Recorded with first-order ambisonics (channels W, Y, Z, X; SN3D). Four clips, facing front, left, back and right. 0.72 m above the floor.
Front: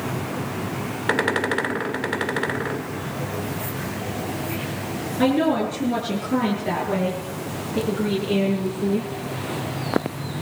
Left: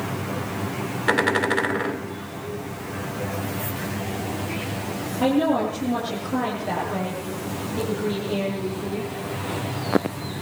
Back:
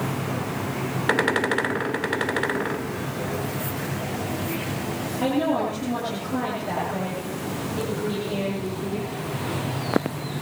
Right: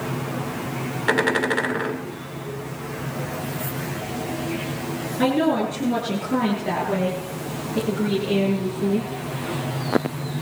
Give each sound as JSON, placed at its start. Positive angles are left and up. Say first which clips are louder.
{"t": 5.2, "sound": "a woman speaking", "louder": "even, front 4 dB", "azimuth_deg": -45, "distance_m": 8.5}